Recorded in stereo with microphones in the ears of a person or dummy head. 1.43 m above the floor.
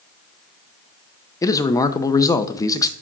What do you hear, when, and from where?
1.4 s a man speaking: 15° left (ahead or behind), 0.6 m